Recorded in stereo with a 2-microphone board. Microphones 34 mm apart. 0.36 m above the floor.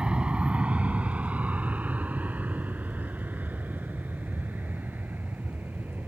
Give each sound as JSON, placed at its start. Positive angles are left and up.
{"t": 0.0, "sound": "an aircraft", "side_deg": -30}